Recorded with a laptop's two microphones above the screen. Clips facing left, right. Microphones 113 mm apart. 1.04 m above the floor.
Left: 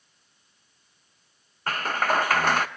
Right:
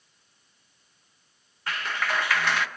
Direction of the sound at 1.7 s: 45° left (ahead or behind).